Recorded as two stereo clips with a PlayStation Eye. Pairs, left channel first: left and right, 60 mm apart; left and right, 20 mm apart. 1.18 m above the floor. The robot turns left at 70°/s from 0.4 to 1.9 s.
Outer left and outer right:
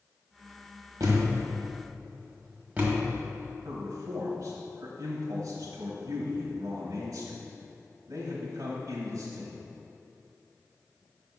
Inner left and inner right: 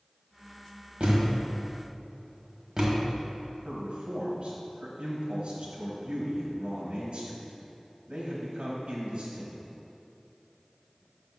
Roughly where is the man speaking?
Right.